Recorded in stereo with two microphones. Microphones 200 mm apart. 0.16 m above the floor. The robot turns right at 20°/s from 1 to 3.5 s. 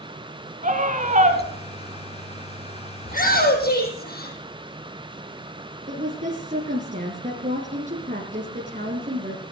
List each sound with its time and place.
0.6 s a scream: 40° right (ahead or behind), 2.0 m; by 1.4 s 35° right (ahead or behind), 2.0 m
3.0 s a shout: 40° left (ahead or behind), 5 m; by 4.4 s 50° left (ahead or behind), 5 m
5.9 s a woman speaking: 40° right (ahead or behind), 2.5 m